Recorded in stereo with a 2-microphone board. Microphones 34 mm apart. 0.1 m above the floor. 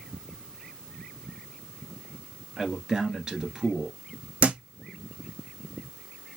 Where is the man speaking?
20° right (ahead or behind), 1.3 m.